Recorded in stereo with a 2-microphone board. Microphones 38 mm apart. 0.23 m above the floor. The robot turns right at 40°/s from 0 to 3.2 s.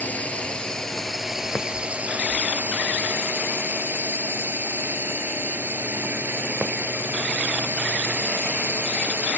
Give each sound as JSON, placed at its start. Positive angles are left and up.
{"t": 0.0, "sound": "a drone", "azimuth_deg": 135}